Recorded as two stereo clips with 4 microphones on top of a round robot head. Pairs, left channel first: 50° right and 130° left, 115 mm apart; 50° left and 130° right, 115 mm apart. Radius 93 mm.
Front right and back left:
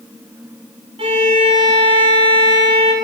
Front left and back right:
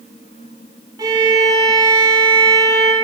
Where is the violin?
175° left, 0.7 m.